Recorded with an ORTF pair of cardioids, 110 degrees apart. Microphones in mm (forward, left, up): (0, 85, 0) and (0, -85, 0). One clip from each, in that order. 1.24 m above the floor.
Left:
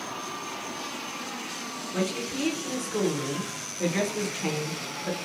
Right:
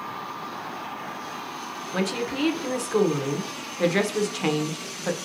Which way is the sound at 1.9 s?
30° right.